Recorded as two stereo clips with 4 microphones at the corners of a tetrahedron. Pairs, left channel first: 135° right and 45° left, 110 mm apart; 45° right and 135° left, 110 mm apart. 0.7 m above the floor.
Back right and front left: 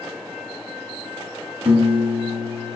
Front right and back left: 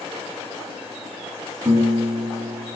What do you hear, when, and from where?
1.6 s a piano: 75° left, 2.5 m